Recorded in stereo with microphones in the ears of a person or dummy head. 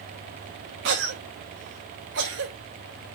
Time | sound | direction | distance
0.8 | a cough | 65° right (ahead or behind) | 0.9 m